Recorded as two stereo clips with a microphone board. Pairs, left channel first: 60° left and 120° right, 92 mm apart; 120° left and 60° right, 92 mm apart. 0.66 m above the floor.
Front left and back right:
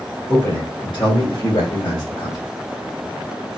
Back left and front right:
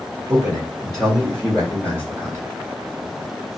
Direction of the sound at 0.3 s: 15° left.